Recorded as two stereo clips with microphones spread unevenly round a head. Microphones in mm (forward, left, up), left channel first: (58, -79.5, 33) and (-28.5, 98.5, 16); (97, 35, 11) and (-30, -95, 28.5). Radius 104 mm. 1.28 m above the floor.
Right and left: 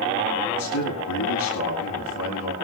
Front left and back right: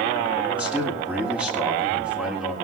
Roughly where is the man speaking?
Ahead right.